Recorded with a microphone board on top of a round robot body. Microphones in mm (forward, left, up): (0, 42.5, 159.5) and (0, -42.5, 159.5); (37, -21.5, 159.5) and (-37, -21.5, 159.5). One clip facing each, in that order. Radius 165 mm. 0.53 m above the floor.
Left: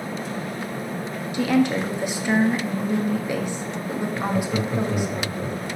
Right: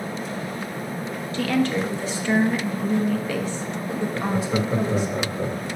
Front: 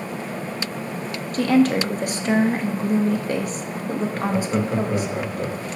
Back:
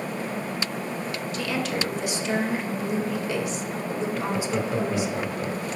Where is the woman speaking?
20° left, 1.1 m.